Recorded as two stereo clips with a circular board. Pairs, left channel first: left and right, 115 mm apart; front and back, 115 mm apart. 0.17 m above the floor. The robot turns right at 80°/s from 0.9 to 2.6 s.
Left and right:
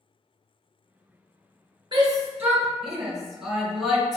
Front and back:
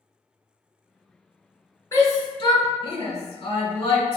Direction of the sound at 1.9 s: 60° right.